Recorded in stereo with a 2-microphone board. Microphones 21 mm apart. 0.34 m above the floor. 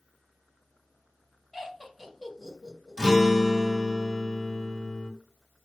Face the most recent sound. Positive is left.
turn(degrees=-25)  # may be behind; listen again after turning